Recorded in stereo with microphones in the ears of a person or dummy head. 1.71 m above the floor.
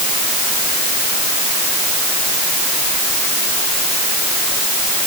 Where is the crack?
I don't hear a crack.